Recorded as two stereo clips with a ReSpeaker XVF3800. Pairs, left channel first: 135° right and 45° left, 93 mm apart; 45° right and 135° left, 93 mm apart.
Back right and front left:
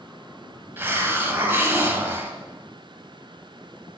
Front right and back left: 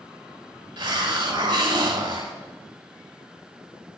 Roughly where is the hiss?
Left.